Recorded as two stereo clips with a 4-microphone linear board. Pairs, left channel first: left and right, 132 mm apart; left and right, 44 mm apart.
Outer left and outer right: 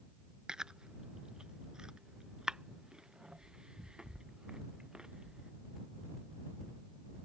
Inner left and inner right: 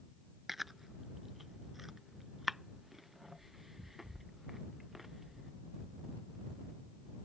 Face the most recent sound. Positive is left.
turn(degrees=-5)  # may be behind; listen again after turning